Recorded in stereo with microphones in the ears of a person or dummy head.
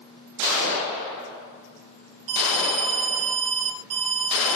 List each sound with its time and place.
2.3 s an alarm: 40° right (ahead or behind), 4 m